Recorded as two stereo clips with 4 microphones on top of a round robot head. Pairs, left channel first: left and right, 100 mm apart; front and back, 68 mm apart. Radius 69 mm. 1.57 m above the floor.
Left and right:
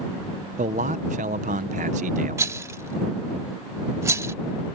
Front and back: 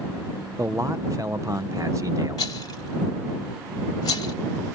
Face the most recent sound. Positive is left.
turn(degrees=-35)